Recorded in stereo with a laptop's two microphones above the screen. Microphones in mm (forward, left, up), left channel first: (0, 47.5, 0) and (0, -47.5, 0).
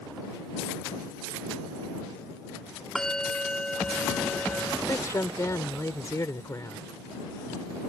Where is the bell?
5° left (ahead or behind).